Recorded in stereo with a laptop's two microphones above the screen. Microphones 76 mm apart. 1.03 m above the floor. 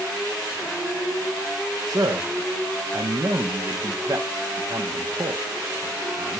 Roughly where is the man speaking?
Right.